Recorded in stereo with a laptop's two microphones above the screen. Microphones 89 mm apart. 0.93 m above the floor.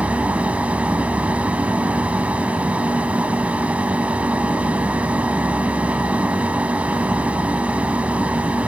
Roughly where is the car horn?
No car horn in this recording.